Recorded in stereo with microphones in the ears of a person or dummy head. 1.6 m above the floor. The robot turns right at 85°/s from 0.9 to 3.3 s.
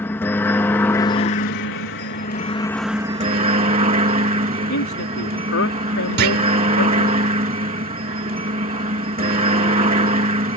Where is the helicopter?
15° left; by 10.6 s 140° right.